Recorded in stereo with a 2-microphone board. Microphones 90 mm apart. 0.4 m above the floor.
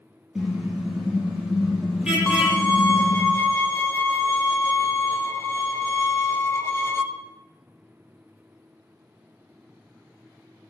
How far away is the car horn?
About 5 m.